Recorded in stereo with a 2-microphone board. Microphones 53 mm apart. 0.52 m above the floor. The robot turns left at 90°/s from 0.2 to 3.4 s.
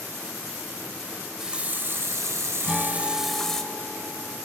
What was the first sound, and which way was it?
A running tap, 15° left.